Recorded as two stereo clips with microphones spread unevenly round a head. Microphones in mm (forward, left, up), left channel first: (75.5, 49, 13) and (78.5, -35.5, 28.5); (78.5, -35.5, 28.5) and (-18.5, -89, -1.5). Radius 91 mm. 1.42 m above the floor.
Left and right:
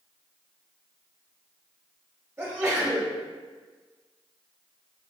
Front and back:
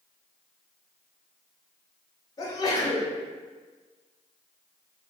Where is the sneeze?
25° right, 1.4 m.